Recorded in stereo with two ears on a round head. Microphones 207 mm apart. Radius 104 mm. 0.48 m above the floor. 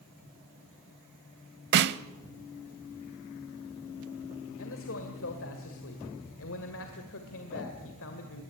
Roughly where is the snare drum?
Right.